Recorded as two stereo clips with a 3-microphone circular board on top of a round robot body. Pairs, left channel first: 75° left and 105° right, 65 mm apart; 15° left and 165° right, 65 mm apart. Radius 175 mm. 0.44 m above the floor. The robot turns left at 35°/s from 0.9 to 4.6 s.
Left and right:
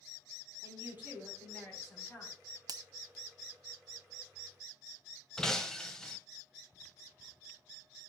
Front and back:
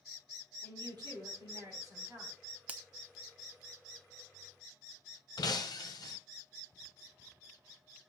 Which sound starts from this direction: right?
A finger snap, at 2.7 s.